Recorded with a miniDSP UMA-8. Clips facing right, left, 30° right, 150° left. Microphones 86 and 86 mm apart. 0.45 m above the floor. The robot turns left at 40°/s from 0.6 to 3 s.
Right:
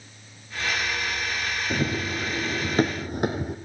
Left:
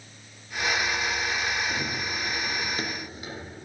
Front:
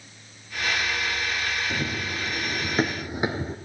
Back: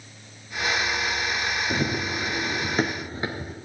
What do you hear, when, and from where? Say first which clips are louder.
1.7 s running footsteps: right 4 dB, back 3 dB; 145° right, 1.0 m; by 3.6 s 85° right, 1.0 m